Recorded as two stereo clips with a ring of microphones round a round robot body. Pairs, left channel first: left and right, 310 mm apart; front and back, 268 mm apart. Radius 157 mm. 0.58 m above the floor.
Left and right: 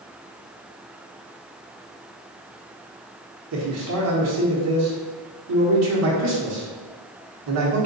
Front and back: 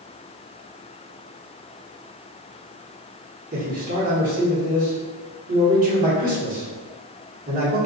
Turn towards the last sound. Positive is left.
turn(degrees=-120)